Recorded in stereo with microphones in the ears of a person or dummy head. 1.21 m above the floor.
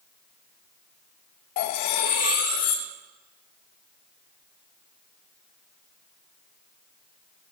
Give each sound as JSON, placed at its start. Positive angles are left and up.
{"t": 1.6, "sound": "cutlery clinking", "side_deg": 45, "distance_m": 0.6}